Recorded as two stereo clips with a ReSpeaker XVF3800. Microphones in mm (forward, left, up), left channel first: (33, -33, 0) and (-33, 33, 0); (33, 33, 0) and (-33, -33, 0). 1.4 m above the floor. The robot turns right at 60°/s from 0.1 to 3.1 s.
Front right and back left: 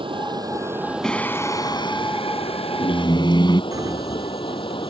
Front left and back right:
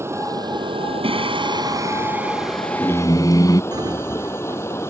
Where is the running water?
165° left; by 4.9 s 15° right.